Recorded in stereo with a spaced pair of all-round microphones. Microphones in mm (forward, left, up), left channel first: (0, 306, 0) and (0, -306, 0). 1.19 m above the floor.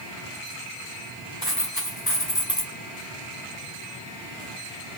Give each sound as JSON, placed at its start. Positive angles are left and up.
{"t": 1.4, "sound": "a dropped coin", "side_deg": 35, "distance_m": 3.5}